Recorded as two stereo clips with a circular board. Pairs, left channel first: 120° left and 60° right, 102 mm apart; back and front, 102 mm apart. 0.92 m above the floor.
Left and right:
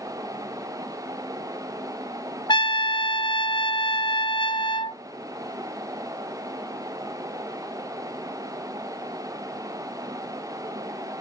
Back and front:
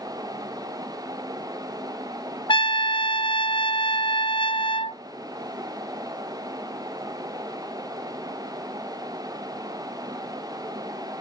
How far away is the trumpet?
About 0.7 m.